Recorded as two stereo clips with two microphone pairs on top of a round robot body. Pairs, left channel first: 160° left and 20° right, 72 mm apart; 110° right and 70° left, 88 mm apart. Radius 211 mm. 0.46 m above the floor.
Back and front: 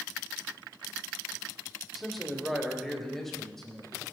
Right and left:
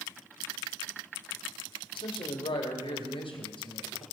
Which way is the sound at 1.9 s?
110° right.